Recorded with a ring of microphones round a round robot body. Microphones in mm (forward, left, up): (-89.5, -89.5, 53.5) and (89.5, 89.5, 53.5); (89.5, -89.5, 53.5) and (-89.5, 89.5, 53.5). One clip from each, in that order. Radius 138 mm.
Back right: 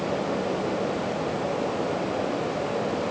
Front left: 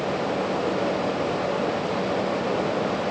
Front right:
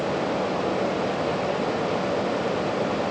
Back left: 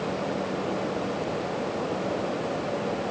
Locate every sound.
Only background noise.